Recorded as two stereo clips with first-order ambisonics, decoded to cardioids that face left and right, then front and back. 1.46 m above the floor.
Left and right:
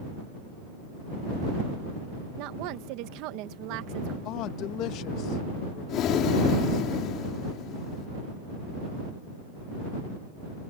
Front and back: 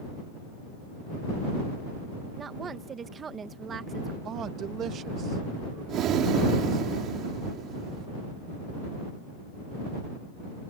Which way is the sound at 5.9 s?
135° left.